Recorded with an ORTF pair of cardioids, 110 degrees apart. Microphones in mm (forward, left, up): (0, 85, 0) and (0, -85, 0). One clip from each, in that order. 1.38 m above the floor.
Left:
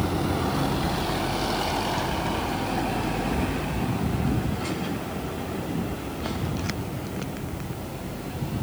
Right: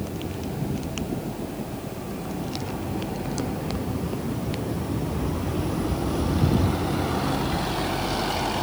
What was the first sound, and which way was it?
Only background noise.